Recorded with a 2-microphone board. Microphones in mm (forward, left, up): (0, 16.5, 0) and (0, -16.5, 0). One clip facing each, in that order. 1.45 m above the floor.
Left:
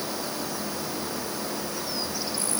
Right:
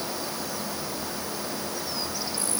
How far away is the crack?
I don't hear a crack.